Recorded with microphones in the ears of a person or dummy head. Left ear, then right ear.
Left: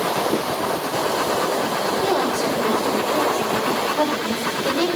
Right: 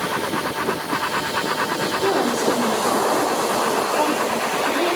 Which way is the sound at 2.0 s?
40° left (ahead or behind).